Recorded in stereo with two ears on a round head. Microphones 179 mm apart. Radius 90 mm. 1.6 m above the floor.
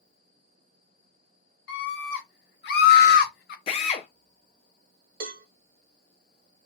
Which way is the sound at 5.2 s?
50° right (ahead or behind).